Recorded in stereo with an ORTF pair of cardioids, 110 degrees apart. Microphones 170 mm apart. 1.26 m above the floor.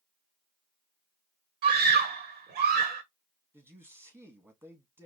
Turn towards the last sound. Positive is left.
turn(degrees=-15)